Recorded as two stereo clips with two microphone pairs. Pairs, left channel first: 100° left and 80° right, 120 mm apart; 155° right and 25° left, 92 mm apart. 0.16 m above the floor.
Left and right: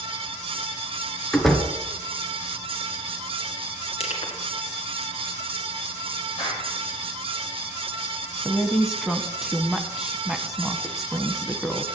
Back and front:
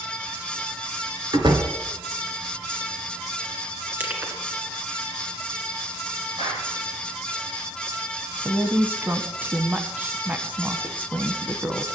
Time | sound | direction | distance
1.3 | a door slam | 10° left | 1.7 m
4.0 | crushing | 90° left | 2 m
6.4 | a clap | 50° left | 7 m
8.4 | a woman speaking | straight ahead | 1.1 m